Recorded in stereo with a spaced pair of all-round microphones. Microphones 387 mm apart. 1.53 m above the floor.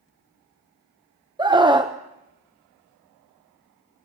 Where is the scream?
10° right (ahead or behind), 0.7 m.